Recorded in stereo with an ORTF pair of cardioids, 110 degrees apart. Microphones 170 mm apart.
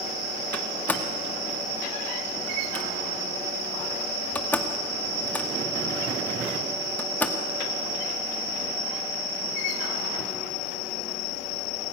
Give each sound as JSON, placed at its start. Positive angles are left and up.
{"t": 0.5, "sound": "a door slam", "azimuth_deg": 10, "distance_m": 1.9}